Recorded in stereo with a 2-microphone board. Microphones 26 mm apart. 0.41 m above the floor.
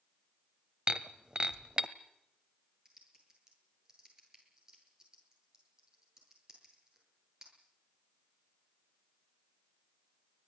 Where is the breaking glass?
35° right (ahead or behind), 1.3 m.